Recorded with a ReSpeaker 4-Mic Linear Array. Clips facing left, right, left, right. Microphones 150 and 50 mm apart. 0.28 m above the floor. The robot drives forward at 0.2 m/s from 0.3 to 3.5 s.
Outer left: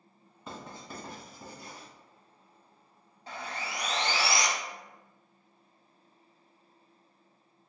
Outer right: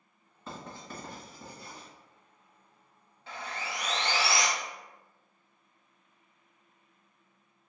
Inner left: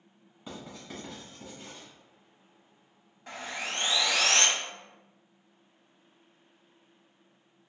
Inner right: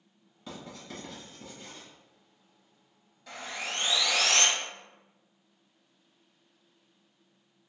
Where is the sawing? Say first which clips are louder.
Even, inner left 1 dB; 40° left (ahead or behind), 0.7 m.